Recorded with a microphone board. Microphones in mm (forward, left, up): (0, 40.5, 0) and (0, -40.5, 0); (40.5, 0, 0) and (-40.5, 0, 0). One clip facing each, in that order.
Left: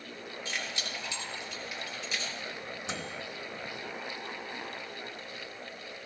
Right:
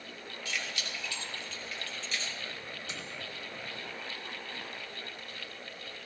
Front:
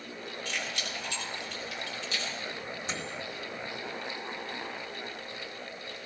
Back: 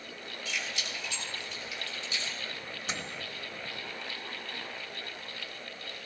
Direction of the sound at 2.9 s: 90° left.